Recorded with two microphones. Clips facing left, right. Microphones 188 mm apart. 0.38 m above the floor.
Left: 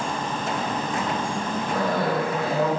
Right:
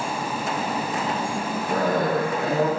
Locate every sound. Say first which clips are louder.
1.7 s a cough: right 2 dB; 45° right (ahead or behind), 4 m